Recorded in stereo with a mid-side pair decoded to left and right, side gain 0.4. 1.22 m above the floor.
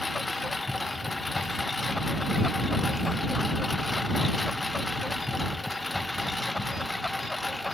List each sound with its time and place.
0.0 s a lawn mower: 20° left; by 7.7 s 10° left